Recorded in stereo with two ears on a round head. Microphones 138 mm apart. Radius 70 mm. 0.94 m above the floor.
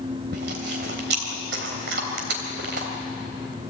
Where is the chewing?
85° right, 3 m.